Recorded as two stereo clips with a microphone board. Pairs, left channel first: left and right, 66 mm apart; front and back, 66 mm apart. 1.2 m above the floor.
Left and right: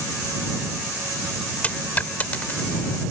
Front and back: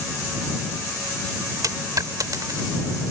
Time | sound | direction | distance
1.6 | a dropped coin | 155° left | ?